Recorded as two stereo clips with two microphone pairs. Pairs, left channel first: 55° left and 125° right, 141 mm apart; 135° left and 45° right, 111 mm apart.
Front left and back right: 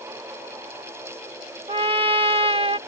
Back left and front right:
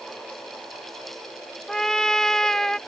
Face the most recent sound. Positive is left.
turn(degrees=-140)